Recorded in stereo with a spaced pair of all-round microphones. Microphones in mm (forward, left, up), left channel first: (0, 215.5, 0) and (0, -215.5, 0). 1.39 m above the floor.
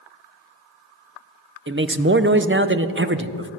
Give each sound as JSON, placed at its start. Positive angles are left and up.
{"t": 1.7, "sound": "a man speaking", "side_deg": -30, "distance_m": 0.6}